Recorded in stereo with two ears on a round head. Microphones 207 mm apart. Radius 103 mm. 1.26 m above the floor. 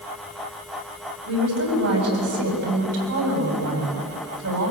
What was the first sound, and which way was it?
A woman speaking, 75° right (ahead or behind).